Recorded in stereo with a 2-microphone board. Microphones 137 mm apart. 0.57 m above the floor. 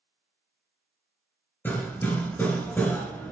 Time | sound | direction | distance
1.6 | hammering | 15° left (ahead or behind) | 3 m